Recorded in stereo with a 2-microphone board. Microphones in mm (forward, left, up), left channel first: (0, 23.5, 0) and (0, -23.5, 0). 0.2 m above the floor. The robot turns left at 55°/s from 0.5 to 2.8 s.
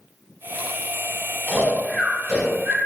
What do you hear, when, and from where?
1.5 s snoring: 10° left (ahead or behind), 1.7 m; by 2.8 s 40° right (ahead or behind), 1.7 m